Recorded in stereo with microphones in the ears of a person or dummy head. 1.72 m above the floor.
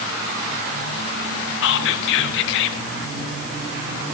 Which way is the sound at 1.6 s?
65° left (ahead or behind).